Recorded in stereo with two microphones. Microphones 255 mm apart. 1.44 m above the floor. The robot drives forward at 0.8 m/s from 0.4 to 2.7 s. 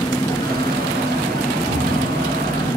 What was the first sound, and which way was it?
An engine running, 10° left (ahead or behind).